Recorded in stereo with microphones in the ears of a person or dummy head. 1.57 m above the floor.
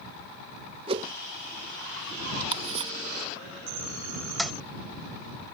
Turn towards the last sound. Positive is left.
turn(degrees=0)  # may be behind; listen again after turning